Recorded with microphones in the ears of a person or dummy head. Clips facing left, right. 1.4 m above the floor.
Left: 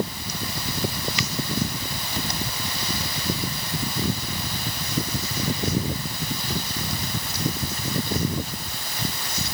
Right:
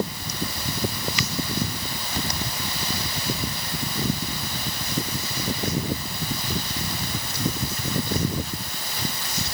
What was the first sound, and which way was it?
Only background noise.